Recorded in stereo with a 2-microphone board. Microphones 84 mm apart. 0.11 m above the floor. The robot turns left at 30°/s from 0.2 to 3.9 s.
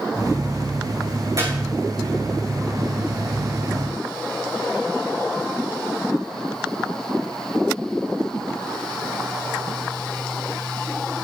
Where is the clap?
45° right (ahead or behind), 6 m; by 1.6 s 40° right (ahead or behind), 6 m.